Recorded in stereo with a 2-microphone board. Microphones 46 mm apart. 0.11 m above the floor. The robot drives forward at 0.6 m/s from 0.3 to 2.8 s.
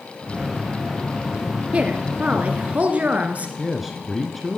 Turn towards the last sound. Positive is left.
turn(degrees=-5)  # may be behind; listen again after turning